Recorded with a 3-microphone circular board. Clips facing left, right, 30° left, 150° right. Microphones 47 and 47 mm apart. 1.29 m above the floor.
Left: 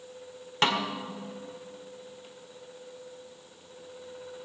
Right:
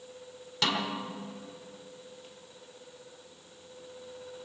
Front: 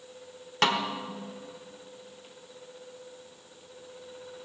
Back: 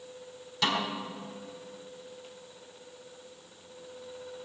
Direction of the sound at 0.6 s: 45° left.